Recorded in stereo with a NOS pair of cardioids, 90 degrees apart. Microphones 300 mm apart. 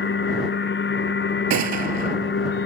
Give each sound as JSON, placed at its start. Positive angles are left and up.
{"t": 0.0, "sound": "a machine running", "azimuth_deg": 40}
{"t": 1.5, "sound": "a gunshot", "azimuth_deg": -70}